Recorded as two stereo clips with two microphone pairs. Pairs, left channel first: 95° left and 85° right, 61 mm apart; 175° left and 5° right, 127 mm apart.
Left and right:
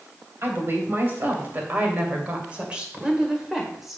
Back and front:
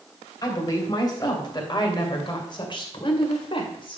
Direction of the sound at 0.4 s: 130° right.